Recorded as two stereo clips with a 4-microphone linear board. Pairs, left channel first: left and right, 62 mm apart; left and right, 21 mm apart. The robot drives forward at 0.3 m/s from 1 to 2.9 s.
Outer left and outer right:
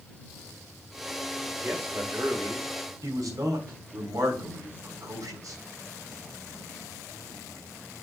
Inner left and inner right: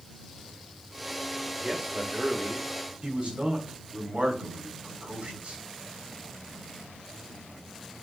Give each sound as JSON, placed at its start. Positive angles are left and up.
{"t": 1.6, "sound": "a man speaking", "side_deg": -40, "distance_m": 3.0}
{"t": 3.0, "sound": "a man speaking", "side_deg": -65, "distance_m": 3.5}